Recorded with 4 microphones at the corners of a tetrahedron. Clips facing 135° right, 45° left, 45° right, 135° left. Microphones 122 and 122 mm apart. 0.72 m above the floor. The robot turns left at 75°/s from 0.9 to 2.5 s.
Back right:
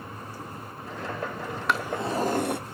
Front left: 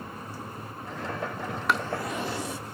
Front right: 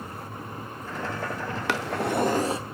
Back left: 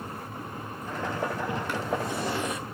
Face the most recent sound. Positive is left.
turn(degrees=-105)